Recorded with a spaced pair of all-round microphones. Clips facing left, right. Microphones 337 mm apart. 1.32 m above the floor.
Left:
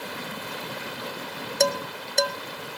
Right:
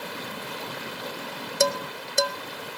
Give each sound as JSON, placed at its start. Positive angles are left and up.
{"t": 1.6, "sound": "dishes clattering", "side_deg": -10, "distance_m": 0.6}